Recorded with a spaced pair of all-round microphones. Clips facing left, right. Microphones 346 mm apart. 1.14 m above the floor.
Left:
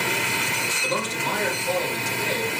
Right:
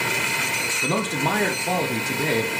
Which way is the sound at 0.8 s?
70° right (ahead or behind).